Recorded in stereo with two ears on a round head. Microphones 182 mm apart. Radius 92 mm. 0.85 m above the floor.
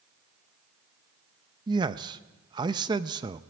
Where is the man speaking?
20° right (ahead or behind), 0.7 m.